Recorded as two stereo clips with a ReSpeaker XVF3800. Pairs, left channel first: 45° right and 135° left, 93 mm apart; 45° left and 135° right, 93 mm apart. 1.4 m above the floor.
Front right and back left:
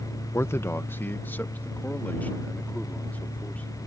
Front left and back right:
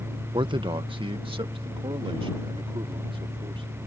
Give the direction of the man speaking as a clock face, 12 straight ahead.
3 o'clock.